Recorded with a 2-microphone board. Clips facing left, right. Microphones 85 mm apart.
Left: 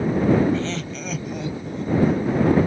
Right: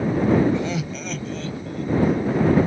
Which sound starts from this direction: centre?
Laughter, at 0.5 s.